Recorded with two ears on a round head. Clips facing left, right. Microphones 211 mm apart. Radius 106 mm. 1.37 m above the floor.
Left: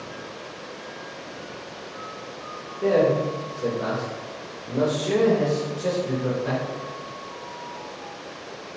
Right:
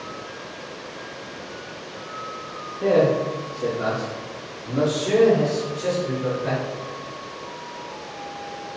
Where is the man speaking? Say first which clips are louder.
Right 1 dB; 55° right (ahead or behind), 2 m; by 6.6 s 65° right (ahead or behind), 5 m.